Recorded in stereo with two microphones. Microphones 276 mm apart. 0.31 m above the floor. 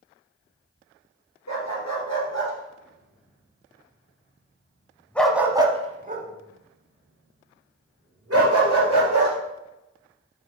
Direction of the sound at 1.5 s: 80° left.